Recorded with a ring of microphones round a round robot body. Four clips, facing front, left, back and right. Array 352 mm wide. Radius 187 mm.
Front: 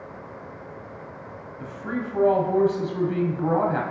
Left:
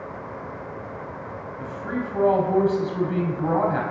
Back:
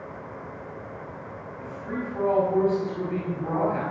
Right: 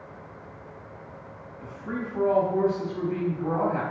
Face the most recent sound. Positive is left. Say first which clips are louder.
# left 4 dB, front 3 dB
turn(degrees=45)